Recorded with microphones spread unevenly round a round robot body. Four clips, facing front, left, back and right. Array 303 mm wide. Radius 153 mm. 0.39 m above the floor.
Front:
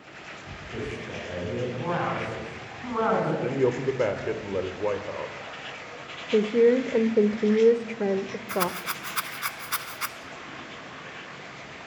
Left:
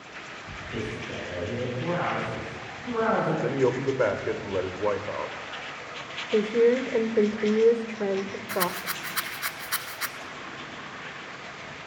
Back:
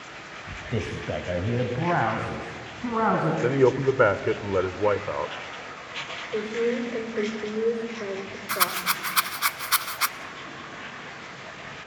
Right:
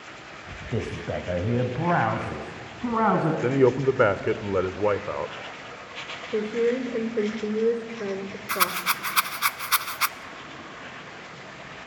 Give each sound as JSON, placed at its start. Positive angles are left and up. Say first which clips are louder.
{"t": 0.7, "sound": "a man speaking", "louder": "right 4 dB, back 5 dB", "azimuth_deg": -140, "distance_m": 2.0}
{"t": 3.4, "sound": "a man speaking", "louder": "right 4 dB, back 4 dB", "azimuth_deg": -140, "distance_m": 1.1}
{"t": 6.3, "sound": "a woman speaking", "louder": "left 3 dB, front 7 dB", "azimuth_deg": 30, "distance_m": 1.1}
{"t": 8.5, "sound": "a rattle", "louder": "right 4 dB, back 2 dB", "azimuth_deg": -125, "distance_m": 0.8}